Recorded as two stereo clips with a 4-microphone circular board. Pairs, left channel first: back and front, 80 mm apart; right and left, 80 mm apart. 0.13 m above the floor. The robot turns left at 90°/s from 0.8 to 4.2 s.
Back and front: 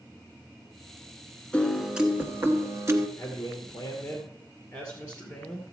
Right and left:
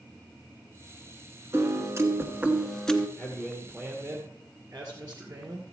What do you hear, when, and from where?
1.5 s a piano: 115° left, 1.1 m; by 3.1 s 25° right, 1.1 m
3.2 s a man speaking: 125° right, 1.9 m; by 5.7 s 140° left, 1.9 m